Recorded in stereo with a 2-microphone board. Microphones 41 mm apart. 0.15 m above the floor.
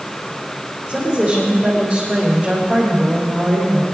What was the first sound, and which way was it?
A woman speaking, 20° right (ahead or behind).